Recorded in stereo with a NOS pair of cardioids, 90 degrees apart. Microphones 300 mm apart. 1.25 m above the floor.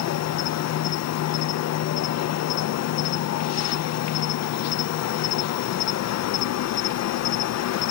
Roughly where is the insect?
Ahead left.